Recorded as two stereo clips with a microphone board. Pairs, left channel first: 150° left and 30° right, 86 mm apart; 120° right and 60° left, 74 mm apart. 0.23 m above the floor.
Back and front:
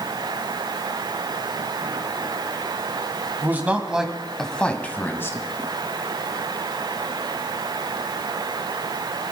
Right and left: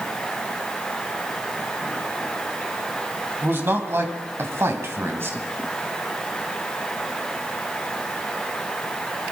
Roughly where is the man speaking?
Ahead.